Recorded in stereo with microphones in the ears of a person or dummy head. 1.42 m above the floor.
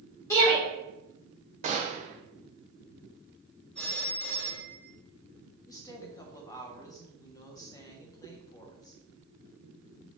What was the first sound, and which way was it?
A shout, 20° left (ahead or behind).